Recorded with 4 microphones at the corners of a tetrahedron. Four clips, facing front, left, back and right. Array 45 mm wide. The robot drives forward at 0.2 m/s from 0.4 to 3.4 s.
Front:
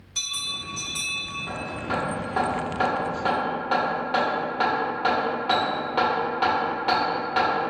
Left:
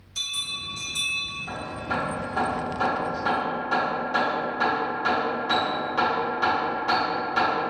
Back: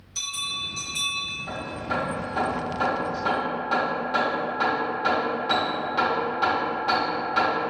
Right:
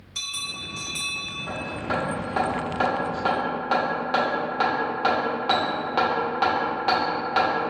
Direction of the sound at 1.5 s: 60° right.